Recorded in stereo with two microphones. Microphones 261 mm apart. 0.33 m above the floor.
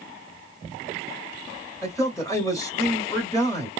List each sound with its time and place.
1.8 s a man speaking: 15° left (ahead or behind), 1.1 m